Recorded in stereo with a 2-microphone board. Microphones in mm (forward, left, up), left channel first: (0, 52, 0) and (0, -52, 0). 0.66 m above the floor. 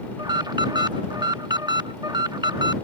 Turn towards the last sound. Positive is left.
turn(degrees=-40)  # may be behind; listen again after turning